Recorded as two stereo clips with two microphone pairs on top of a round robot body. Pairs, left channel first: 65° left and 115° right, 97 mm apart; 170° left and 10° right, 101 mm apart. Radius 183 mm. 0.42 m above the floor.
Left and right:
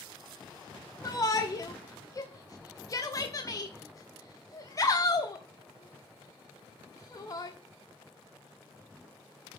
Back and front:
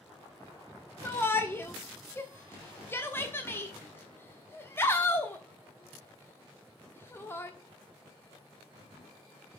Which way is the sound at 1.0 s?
105° left.